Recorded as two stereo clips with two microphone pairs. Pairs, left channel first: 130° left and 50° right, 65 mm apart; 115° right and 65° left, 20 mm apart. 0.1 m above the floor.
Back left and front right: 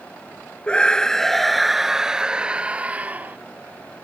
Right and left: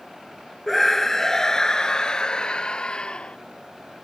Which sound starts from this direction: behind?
A scream, at 0.7 s.